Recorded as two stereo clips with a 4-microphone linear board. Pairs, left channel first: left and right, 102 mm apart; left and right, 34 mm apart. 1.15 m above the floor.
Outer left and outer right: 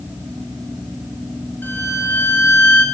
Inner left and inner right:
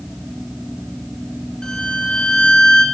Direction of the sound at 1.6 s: 20° left (ahead or behind).